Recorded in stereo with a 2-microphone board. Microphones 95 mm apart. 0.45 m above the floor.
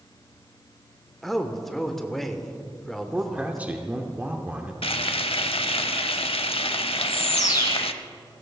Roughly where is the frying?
Left.